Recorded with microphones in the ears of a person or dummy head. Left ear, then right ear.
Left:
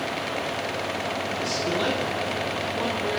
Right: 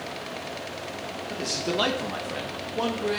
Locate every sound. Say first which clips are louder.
1.3 s a man speaking: right 1 dB; 5° right (ahead or behind), 1.4 m; by 3.2 s 75° right (ahead or behind), 2 m